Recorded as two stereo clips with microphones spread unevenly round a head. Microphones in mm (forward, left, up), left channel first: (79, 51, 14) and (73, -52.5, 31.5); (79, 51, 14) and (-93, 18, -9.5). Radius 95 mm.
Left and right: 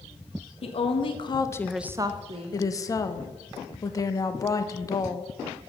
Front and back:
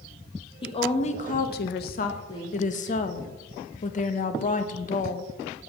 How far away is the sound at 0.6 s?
About 1.8 m.